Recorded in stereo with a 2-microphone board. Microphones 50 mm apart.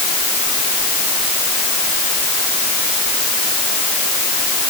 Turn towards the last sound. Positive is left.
No sound to turn to.